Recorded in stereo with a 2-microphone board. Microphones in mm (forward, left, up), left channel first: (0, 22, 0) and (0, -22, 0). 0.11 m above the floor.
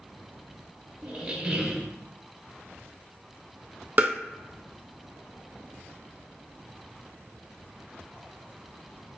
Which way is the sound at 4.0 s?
40° right (ahead or behind).